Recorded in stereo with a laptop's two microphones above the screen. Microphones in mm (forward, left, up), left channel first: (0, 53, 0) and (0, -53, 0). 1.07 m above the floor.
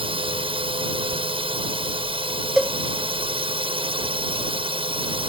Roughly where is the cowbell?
Centre.